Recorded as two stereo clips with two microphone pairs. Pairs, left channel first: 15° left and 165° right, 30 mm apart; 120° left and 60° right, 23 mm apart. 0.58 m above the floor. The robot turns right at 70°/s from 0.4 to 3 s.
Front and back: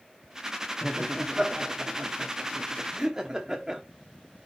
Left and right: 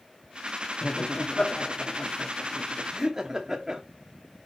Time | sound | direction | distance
0.8 | laughter | 100° left | 1.0 m